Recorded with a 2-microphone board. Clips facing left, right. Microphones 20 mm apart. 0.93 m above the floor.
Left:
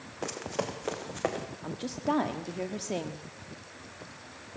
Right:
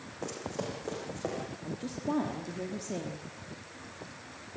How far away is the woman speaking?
About 1.4 m.